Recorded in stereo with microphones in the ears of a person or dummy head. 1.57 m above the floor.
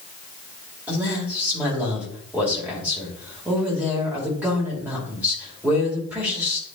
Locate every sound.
0.9 s a man speaking: 5° right (ahead or behind), 3 m